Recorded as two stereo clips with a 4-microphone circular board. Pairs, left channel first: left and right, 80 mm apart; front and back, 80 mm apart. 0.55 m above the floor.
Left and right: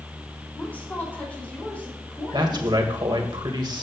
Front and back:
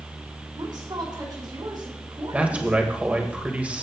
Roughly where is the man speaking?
Right.